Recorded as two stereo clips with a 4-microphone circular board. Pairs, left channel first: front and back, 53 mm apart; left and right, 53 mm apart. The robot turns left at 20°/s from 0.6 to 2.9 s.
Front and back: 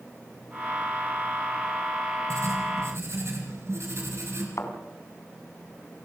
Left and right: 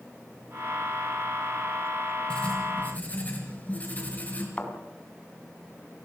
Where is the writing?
160° left, 4 m; by 4.5 s 145° left, 4 m.